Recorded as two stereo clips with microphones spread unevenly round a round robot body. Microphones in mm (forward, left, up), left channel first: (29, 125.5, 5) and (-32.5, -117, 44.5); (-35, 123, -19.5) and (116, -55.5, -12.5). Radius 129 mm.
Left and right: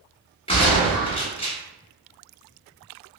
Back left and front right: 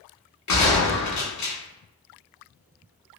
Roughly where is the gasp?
No gasp in this recording.